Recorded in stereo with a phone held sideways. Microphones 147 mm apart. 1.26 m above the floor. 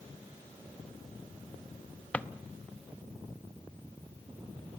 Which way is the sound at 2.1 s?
10° left (ahead or behind).